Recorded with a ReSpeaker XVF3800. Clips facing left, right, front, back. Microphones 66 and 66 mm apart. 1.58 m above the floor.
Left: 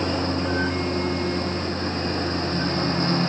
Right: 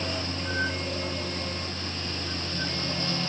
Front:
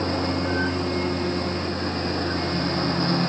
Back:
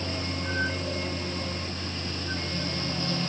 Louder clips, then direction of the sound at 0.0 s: Left 8 dB, front 8 dB; 40° left.